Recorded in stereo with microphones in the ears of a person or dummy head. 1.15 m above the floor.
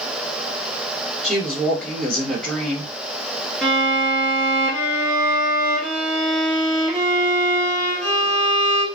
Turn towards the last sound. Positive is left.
turn(degrees=0)  # may be behind; listen again after turning